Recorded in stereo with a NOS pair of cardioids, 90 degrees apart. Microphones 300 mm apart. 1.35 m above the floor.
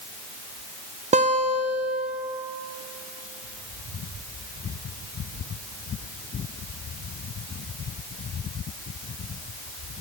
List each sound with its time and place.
1.1 s a guitar: 20° right, 1.0 m